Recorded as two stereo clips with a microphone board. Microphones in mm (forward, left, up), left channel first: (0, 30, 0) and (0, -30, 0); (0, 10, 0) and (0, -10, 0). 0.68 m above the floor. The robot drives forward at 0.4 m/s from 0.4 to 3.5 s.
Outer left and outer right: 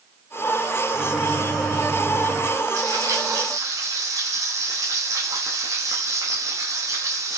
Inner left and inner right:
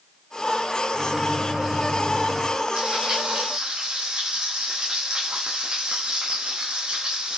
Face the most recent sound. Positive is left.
turn(degrees=-65)  # may be behind; listen again after turning